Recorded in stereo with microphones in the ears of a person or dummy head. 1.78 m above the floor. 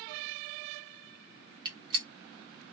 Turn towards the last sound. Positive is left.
turn(degrees=-25)  # may be behind; listen again after turning